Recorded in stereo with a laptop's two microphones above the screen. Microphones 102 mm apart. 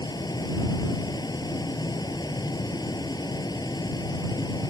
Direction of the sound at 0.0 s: 40° left (ahead or behind).